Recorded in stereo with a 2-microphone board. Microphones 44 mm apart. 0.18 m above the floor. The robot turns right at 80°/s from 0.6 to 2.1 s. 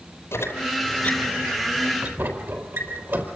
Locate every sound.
0.3 s a squeak: 65° left (ahead or behind), 4 m; by 3.3 s 50° right (ahead or behind), 4 m